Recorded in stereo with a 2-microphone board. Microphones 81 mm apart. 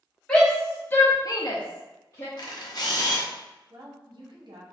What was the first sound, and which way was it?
A shout, 10° left (ahead or behind).